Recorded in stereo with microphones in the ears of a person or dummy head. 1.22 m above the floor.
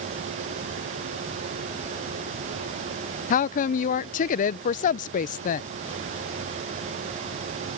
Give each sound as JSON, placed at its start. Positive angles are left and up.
{"t": 3.3, "sound": "a woman speaking", "side_deg": 35}